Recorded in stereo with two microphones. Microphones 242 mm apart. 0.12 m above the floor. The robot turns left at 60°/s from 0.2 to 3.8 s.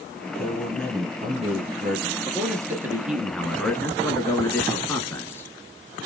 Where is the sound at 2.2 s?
15° right (ahead or behind), 1.1 m; by 5.5 s 10° left (ahead or behind), 1.1 m.